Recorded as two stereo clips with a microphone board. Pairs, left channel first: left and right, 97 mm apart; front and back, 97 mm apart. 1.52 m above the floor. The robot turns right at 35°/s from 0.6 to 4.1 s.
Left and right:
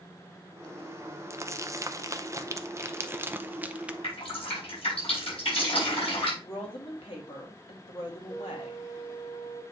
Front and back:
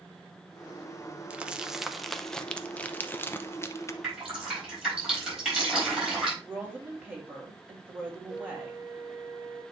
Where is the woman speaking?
110° left, 2.5 m.